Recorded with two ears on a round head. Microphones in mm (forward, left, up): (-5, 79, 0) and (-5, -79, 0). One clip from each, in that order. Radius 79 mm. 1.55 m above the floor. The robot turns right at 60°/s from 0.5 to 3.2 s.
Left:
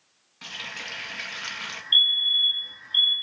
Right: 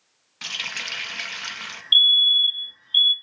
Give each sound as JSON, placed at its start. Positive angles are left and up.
{"t": 0.4, "sound": "a running tap", "azimuth_deg": -75, "distance_m": 1.1}
{"t": 1.9, "sound": "a fire alarm", "azimuth_deg": -135, "distance_m": 0.9}